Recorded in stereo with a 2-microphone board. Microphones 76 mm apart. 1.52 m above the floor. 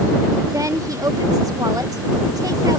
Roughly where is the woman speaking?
Right.